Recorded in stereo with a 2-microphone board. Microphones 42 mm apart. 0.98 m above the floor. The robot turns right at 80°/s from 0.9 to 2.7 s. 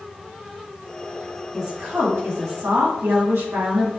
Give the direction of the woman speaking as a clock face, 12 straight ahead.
6 o'clock.